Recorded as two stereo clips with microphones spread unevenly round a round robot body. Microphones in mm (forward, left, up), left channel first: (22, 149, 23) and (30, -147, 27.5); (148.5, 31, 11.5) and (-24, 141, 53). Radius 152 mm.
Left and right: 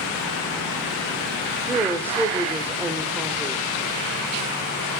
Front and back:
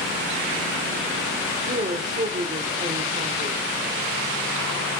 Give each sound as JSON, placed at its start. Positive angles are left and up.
{"t": 1.7, "sound": "a woman speaking", "azimuth_deg": -170, "distance_m": 1.1}